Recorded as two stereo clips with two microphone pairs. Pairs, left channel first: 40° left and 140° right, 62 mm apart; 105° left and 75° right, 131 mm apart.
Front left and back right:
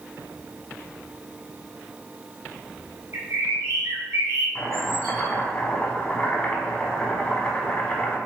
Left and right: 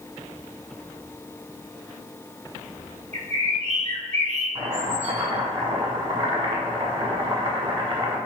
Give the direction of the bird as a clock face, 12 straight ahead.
3 o'clock.